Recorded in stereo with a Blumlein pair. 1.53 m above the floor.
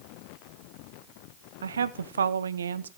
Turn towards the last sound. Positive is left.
turn(degrees=-70)